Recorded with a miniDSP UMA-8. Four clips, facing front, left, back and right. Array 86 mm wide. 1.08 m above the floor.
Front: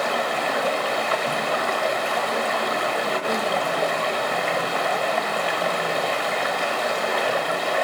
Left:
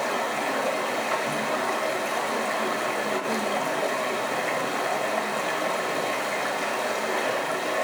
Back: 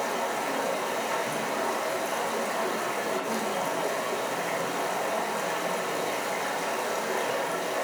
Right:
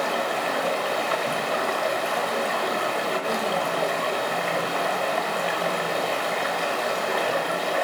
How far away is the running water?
About 1.0 m.